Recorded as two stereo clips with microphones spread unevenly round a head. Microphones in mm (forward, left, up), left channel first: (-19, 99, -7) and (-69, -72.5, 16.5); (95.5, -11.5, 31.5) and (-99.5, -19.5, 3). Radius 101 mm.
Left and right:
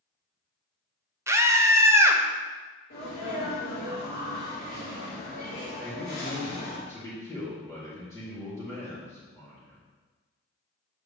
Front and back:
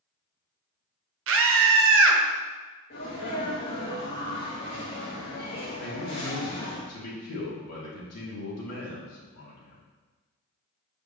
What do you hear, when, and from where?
1.3 s a scream: 175° left, 1.3 m
2.9 s a sneeze: 45° left, 1.8 m
5.8 s a man speaking: 5° right, 3 m